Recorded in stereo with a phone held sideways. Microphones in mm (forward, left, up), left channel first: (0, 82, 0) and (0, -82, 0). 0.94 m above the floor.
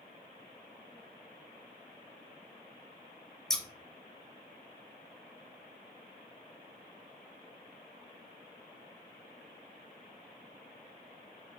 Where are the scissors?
5° left (ahead or behind), 1.0 m.